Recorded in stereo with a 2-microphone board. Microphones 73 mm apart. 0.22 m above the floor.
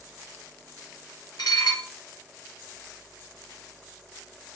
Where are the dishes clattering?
65° left (ahead or behind), 1.9 m.